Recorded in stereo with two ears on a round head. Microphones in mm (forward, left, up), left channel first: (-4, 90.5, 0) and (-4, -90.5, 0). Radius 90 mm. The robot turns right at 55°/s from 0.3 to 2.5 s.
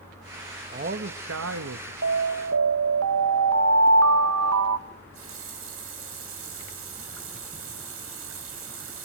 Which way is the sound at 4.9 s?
75° right (ahead or behind).